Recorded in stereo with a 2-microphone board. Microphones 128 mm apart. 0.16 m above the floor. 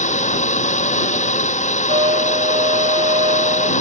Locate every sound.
0.0 s a drone: 70° left (ahead or behind)
1.9 s a trumpet: 50° right (ahead or behind)